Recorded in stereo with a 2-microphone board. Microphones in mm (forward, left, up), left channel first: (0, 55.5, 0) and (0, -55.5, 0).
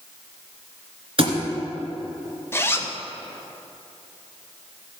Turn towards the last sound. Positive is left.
turn(degrees=20)  # may be behind; listen again after turning